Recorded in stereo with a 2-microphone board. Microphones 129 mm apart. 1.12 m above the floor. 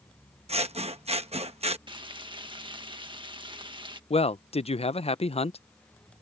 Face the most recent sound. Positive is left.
turn(degrees=55)  # may be behind; listen again after turning